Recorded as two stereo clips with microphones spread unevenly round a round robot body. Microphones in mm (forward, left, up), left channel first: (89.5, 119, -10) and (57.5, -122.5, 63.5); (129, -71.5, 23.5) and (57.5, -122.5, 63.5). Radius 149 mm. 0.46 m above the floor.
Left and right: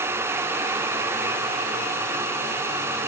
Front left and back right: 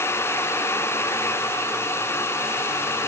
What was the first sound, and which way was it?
Only background noise.